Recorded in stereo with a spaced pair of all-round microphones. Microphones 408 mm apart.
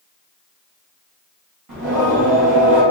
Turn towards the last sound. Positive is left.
turn(degrees=-45)  # may be behind; listen again after turning